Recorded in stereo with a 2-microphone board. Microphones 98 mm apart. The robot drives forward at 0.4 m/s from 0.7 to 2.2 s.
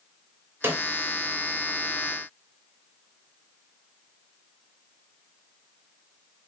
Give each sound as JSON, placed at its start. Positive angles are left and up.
{"t": 0.6, "sound": "a snare drum", "side_deg": -25, "distance_m": 0.6}